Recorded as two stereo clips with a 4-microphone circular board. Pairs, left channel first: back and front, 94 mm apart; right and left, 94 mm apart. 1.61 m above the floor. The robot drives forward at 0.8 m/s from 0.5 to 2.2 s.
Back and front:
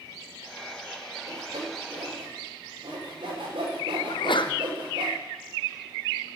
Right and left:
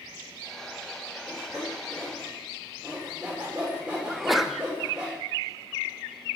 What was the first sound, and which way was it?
Sawing, 10° left.